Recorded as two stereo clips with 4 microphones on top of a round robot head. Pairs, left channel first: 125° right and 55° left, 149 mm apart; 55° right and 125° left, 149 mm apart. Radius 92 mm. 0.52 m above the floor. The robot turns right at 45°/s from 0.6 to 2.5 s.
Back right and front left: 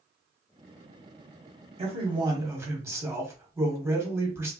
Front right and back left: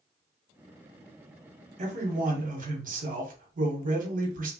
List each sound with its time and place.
1.8 s a man speaking: 95° left, 1.3 m; by 4.5 s 125° left, 1.3 m